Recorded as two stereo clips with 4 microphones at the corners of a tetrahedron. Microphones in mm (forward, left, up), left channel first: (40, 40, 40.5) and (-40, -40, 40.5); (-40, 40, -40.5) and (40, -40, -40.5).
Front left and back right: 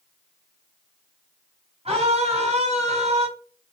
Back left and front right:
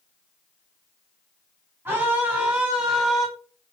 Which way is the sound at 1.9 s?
115° right.